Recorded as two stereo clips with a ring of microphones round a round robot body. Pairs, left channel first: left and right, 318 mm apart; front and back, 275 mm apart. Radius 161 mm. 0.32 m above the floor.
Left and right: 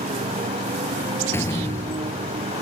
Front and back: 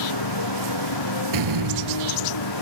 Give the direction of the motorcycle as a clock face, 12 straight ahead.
1 o'clock.